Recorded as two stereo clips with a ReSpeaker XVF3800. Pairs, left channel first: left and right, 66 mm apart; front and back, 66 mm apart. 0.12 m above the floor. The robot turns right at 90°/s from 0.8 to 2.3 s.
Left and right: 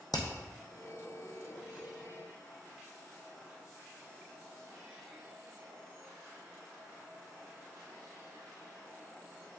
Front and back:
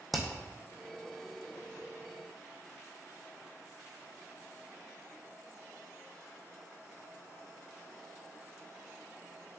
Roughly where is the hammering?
Left.